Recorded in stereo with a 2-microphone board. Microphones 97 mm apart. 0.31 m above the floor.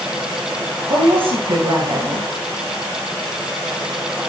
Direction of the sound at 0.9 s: 65° right (ahead or behind).